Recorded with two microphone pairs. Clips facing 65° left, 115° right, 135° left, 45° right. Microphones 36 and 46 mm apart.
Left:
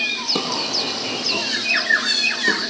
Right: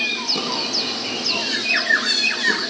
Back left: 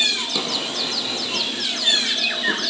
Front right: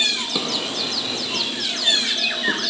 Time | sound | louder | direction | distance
0.3 | a drawer | left 1 dB, even | 30° left | 6 m